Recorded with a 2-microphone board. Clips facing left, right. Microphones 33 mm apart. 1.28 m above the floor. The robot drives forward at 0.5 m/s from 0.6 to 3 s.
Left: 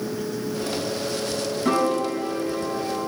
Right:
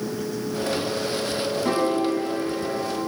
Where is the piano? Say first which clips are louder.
Left 1 dB; 5° left (ahead or behind), 7 m.